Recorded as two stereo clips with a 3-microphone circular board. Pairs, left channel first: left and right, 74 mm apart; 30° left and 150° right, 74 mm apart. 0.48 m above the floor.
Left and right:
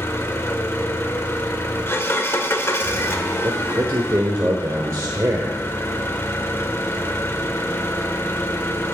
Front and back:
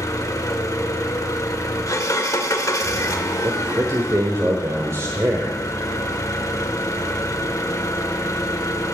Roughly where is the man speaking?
Behind right.